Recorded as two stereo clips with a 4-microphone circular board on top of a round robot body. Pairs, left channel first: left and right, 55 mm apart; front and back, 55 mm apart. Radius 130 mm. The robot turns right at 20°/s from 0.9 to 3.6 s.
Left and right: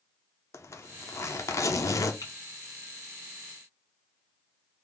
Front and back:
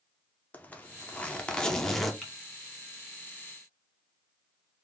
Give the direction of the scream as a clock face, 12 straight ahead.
I don't hear a scream.